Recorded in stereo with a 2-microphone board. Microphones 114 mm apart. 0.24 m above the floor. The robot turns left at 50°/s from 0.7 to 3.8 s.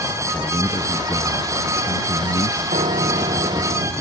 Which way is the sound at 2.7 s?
80° right.